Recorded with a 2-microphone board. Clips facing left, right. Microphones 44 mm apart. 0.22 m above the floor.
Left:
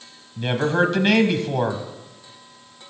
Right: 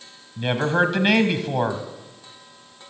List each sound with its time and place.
0.4 s a man speaking: 5° right (ahead or behind), 1.0 m